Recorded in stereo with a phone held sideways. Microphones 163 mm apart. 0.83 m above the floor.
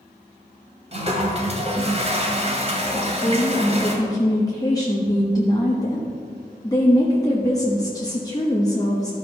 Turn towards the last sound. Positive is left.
turn(degrees=20)  # may be behind; listen again after turning